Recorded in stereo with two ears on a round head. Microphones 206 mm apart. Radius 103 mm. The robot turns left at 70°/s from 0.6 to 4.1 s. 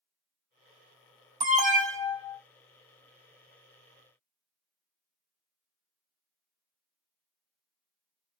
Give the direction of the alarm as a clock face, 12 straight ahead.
1 o'clock.